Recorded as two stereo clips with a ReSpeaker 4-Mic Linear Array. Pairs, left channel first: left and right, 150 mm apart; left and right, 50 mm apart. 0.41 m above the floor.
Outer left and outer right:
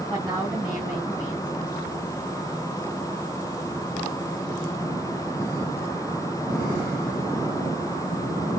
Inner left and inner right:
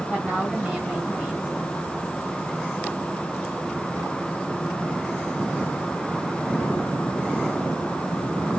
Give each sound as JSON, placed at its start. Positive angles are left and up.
{"t": 0.1, "sound": "a woman speaking", "side_deg": -10, "distance_m": 3.0}